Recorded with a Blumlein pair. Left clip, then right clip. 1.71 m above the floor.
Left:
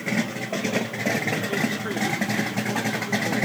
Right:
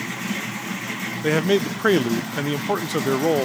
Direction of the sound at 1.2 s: 55° right.